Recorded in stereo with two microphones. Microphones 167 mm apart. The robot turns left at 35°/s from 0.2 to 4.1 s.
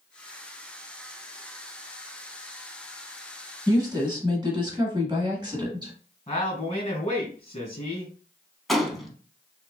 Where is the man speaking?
40° left (ahead or behind), 2.5 m.